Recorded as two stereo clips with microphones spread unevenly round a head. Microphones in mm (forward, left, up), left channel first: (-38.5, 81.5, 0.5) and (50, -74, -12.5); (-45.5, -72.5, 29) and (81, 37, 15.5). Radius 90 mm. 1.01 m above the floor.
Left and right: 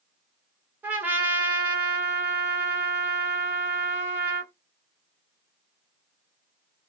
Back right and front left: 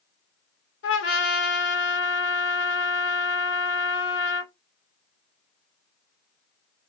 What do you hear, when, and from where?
0.8 s a trumpet: 140° right, 0.9 m